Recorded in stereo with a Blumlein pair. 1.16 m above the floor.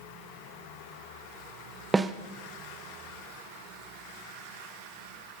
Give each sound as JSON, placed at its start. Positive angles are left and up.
{"t": 1.9, "sound": "a snare drum", "azimuth_deg": -10, "distance_m": 0.6}